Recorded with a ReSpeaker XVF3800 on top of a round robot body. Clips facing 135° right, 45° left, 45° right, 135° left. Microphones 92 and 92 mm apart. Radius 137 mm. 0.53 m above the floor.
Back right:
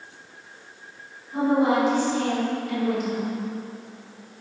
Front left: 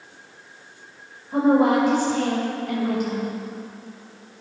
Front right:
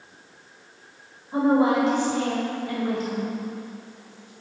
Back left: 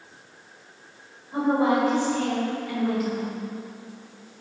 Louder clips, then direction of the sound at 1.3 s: Front left 3 dB, front right 2 dB; 20° left.